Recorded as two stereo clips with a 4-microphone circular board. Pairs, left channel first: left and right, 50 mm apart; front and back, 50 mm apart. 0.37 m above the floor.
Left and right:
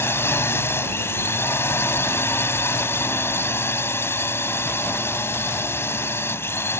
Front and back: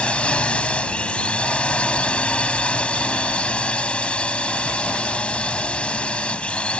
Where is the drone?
65° left.